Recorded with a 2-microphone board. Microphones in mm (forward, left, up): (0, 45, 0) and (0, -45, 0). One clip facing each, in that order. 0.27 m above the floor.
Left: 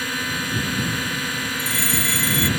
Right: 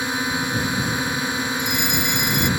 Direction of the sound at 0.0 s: 20° right (ahead or behind).